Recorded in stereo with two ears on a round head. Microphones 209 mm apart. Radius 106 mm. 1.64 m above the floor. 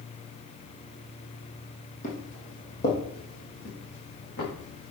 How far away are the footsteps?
About 2.5 m.